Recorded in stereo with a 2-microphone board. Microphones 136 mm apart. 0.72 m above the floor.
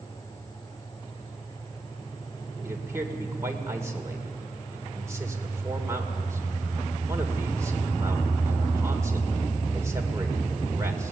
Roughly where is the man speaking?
Right.